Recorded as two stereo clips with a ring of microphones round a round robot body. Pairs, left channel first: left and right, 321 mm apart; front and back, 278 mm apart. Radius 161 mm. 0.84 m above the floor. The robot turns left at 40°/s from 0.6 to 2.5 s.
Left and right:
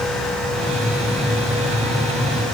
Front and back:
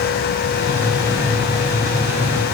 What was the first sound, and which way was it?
Only background noise.